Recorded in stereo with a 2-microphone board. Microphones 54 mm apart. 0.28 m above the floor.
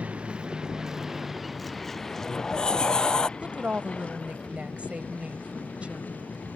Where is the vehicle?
25° right (ahead or behind); by 6.6 s 35° left (ahead or behind).